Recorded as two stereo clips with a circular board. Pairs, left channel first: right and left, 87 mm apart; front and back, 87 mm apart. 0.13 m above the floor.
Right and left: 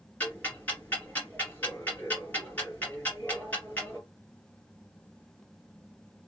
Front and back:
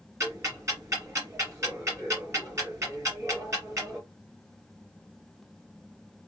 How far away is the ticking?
About 2 m.